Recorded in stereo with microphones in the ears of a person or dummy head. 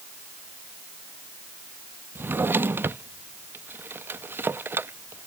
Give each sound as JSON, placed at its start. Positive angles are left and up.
{"t": 2.1, "sound": "a drawer", "side_deg": -10}